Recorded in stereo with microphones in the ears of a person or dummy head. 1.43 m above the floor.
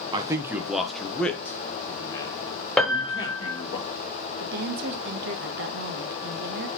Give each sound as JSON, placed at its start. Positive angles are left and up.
{"t": 0.1, "sound": "a man speaking", "side_deg": -25, "distance_m": 0.8}
{"t": 2.8, "sound": "a piano", "side_deg": 5, "distance_m": 1.3}
{"t": 4.4, "sound": "a woman speaking", "side_deg": -60, "distance_m": 0.9}